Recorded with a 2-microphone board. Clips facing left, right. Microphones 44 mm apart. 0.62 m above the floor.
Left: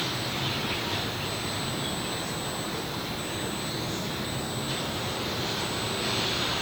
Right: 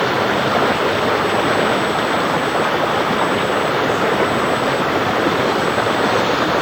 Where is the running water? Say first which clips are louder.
Right 15 dB; 80° right.